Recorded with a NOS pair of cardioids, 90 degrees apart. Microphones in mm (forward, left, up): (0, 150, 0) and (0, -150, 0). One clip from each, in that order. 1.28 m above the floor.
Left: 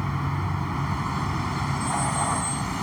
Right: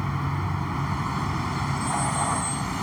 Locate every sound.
0.0 s a vehicle: 5° left